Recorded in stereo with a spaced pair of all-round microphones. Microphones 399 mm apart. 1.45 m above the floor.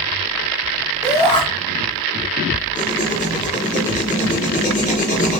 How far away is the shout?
About 4.5 m.